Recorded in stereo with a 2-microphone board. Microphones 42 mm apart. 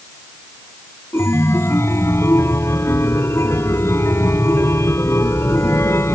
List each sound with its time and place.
1.1 s a chime: 80° left